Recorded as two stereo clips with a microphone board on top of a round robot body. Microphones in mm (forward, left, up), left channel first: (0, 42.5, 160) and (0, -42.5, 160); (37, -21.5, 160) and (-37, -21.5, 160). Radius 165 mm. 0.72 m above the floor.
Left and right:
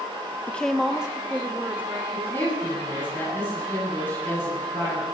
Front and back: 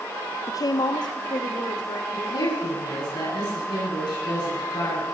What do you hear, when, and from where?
0.5 s a woman speaking: 25° left, 0.6 m; by 2.0 s 20° right, 2 m
2.1 s a woman speaking: 25° left, 9 m